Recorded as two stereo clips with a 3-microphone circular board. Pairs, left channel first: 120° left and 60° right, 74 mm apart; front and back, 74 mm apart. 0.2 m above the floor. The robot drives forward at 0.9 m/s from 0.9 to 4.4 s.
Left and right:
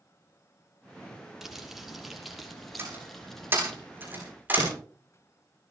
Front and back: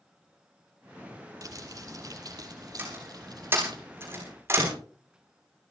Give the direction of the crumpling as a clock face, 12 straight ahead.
5 o'clock.